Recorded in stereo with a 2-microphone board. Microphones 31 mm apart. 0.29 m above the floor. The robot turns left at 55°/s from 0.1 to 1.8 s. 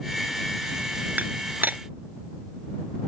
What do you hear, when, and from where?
1.2 s dishes clattering: 70° right (ahead or behind)